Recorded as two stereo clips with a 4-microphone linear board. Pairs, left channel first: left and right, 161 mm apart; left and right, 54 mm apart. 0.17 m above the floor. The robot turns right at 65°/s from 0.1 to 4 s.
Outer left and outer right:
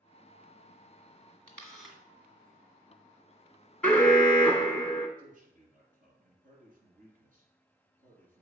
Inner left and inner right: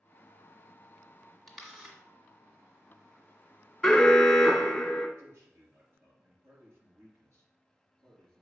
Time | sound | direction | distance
1.5 | a camera shutter | 10° left (ahead or behind) | 1.6 m
3.8 | an alarm | 5° left (ahead or behind) | 1.2 m
5.2 | a man speaking | 60° right (ahead or behind) | 3 m